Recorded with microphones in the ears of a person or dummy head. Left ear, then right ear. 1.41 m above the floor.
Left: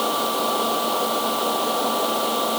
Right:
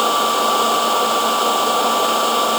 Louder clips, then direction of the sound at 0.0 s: Right 6 dB; 65° right (ahead or behind).